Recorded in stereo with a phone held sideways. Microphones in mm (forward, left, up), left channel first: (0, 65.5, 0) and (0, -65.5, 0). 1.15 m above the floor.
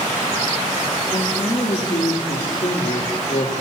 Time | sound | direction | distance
1.1 | a man speaking | 60° left (ahead or behind) | 2.5 m